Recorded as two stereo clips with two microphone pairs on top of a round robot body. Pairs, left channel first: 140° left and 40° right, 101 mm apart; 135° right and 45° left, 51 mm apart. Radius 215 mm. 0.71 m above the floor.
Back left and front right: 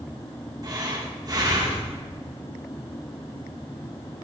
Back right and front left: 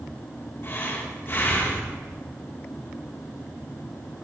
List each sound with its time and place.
0.6 s breathing: 90° right, 3 m